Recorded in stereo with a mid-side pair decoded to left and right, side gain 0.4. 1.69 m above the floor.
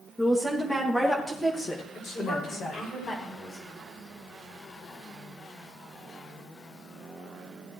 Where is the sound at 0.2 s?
10° left, 3 m; by 2.9 s 65° left, 2.5 m.